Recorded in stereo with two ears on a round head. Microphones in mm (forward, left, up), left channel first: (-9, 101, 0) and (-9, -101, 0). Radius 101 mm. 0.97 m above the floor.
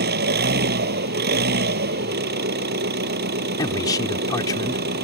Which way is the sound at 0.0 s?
45° right (ahead or behind).